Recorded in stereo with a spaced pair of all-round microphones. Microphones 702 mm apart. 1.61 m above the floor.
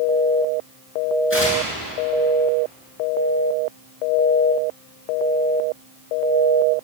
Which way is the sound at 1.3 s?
15° left (ahead or behind).